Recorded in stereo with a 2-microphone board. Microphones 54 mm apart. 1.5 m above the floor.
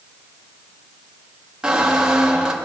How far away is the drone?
I don't hear a drone.